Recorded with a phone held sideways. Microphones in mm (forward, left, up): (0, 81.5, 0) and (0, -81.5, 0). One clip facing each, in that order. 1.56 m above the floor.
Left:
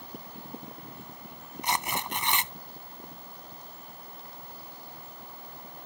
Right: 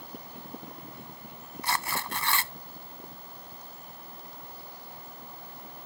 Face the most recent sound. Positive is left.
turn(degrees=20)  # may be behind; listen again after turning